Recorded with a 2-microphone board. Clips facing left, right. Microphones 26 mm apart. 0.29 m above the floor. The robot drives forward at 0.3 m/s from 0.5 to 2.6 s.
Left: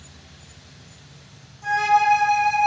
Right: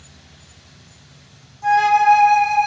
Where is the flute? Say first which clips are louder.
Right 4 dB; 5° right (ahead or behind), 0.6 m.